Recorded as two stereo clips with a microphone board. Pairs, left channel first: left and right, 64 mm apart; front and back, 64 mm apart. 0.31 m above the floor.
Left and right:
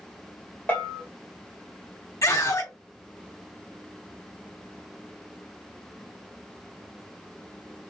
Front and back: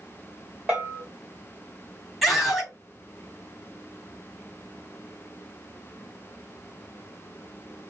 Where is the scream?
90° left, 2.5 m.